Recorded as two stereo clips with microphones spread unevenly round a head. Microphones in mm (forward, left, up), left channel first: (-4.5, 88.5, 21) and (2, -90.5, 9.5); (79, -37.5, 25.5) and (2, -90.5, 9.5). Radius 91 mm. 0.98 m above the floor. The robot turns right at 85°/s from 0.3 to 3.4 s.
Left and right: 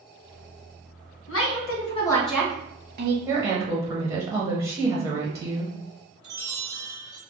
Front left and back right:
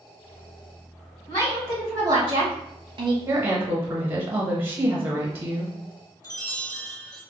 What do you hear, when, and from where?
1.3 s a woman speaking: 95° left, 1.1 m; by 3.2 s 105° right, 1.1 m
3.3 s a woman speaking: 150° right, 0.8 m; by 5.8 s 140° right, 0.8 m
6.2 s a chime: 20° right, 1.5 m